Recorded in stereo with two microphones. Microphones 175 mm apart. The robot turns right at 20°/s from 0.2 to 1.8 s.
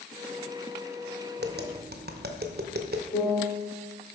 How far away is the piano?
About 2.5 m.